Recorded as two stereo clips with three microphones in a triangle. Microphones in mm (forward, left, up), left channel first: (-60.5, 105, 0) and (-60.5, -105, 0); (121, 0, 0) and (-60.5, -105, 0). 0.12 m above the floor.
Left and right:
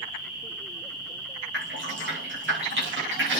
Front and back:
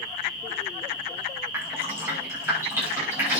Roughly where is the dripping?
Right.